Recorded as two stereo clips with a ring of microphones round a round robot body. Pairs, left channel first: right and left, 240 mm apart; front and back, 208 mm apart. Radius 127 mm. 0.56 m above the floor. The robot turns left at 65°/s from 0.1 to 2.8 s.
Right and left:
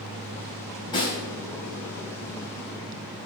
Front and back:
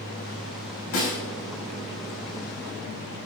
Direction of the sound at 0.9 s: 20° right.